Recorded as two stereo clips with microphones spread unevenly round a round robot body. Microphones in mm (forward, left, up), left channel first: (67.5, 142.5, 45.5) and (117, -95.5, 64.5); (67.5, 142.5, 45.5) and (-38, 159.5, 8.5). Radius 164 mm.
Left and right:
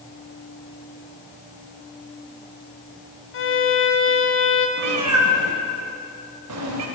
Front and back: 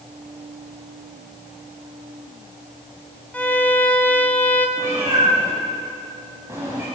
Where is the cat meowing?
100° right, 0.5 m.